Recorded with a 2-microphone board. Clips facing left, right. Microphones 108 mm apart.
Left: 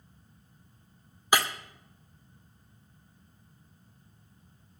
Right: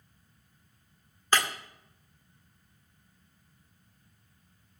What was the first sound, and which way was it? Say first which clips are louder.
Breaking glass: left 1 dB; 10° left (ahead or behind).